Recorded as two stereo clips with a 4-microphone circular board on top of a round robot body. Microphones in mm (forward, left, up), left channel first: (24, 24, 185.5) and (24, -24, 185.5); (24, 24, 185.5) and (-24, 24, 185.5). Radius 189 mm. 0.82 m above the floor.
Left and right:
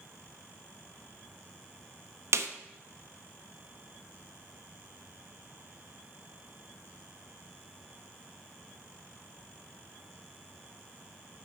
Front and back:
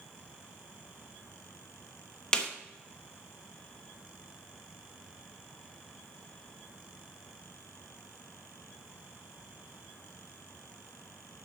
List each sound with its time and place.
2.3 s a snare drum: 70° right, 1.2 m